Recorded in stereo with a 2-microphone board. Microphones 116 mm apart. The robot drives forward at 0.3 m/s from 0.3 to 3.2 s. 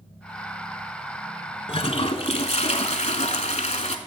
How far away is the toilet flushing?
About 0.9 m.